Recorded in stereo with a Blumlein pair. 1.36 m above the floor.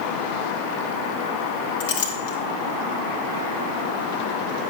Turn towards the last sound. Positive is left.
turn(degrees=55)